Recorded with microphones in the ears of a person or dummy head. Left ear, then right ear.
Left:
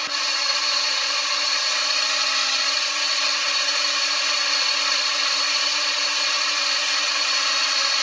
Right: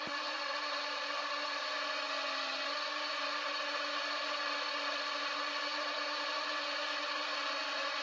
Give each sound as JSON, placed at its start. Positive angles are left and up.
{"t": 0.0, "sound": "a drone", "side_deg": 70}